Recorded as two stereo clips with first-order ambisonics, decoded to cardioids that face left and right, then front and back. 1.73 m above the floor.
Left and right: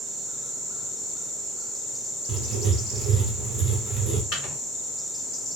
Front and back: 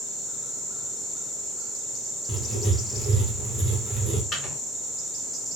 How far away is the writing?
About 0.7 m.